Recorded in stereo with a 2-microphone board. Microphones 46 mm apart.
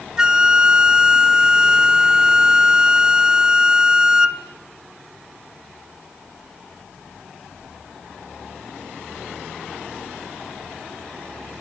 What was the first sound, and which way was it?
A flute, 15° right (ahead or behind).